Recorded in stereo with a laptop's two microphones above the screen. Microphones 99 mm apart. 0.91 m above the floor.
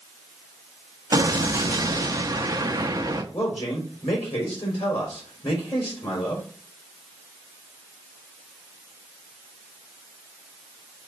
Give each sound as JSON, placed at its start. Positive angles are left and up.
{"t": 1.1, "sound": "an explosion", "side_deg": -35, "distance_m": 0.6}
{"t": 3.3, "sound": "a man speaking", "side_deg": 70, "distance_m": 3.5}